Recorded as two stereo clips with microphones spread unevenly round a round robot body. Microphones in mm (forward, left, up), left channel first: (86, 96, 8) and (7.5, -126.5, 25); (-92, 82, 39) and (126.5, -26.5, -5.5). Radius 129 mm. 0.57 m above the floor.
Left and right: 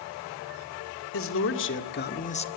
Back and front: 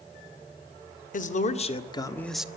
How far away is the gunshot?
No gunshot in this recording.